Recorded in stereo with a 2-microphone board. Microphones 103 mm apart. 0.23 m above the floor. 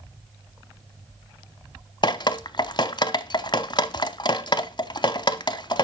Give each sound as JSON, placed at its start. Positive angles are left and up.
{"t": 2.0, "sound": "dripping", "side_deg": 50, "distance_m": 0.5}